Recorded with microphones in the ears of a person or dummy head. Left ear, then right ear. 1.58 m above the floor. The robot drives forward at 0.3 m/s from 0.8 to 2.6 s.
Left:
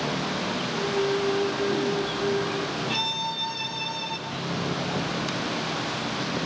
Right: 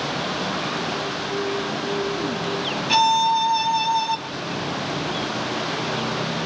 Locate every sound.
2.9 s a violin: 50° right (ahead or behind), 1.4 m